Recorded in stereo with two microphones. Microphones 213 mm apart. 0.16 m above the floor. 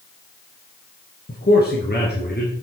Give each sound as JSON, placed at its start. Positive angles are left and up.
{"t": 1.3, "sound": "a man speaking", "side_deg": 50, "distance_m": 2.0}